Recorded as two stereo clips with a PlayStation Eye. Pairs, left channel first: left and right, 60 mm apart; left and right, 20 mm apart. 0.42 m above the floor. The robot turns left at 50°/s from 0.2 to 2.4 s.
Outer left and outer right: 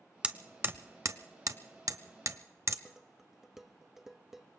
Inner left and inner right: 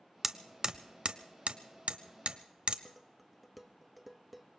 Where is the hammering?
15° right (ahead or behind), 0.7 m; by 2.8 s 50° right (ahead or behind), 0.7 m.